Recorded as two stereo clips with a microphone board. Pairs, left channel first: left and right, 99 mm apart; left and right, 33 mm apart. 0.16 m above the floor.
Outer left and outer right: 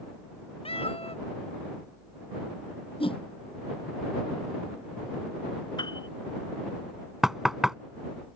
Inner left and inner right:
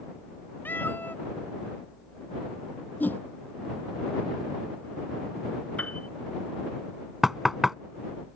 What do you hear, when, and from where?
0.7 s a cat meowing: 75° left (ahead or behind)
3.0 s a whoosh: 65° left (ahead or behind)
5.8 s a piano: 50° left (ahead or behind)
7.2 s knocking: 5° right (ahead or behind)